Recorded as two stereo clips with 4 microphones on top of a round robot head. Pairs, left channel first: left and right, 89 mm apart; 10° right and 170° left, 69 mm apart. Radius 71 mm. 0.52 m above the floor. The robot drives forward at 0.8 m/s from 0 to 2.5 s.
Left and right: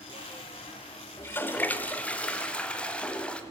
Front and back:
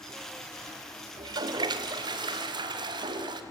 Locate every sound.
1.2 s a toilet flushing: 155° left, 0.9 m; by 3.4 s 170° left, 1.8 m